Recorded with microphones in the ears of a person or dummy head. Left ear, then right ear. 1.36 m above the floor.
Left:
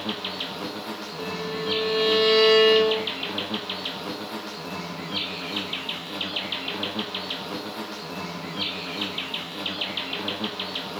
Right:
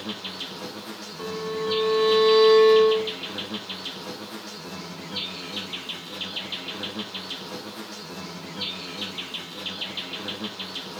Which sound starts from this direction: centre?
An insect, at 0.0 s.